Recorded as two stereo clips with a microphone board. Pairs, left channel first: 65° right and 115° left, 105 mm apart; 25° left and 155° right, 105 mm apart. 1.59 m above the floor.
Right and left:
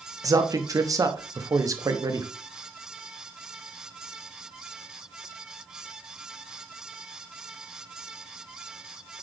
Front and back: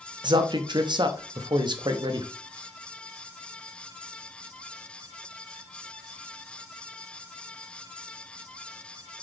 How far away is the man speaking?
About 0.6 m.